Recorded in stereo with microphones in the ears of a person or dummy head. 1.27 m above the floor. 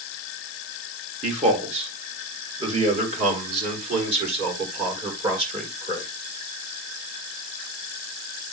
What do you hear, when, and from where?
1.2 s a man speaking: 35° right (ahead or behind), 3 m